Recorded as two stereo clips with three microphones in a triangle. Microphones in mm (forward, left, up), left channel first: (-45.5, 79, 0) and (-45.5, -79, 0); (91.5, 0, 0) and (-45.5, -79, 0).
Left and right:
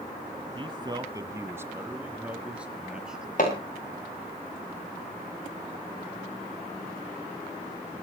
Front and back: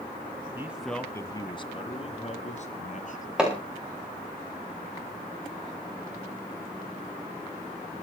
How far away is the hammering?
About 7.5 m.